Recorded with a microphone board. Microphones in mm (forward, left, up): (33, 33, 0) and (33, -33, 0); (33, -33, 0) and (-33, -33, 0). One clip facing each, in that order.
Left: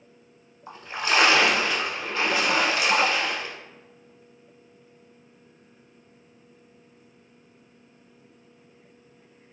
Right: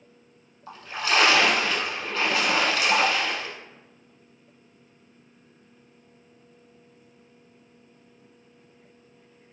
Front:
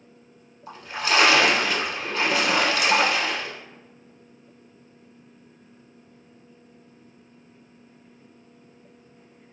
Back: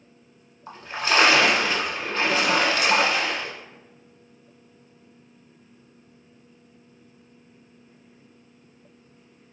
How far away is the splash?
About 0.6 m.